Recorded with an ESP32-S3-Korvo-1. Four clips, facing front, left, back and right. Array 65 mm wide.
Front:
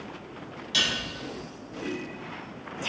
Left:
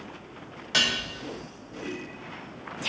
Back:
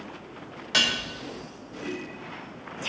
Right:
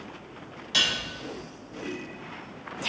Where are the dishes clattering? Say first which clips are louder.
Left 2 dB, back 3 dB; 150° left, 0.7 m.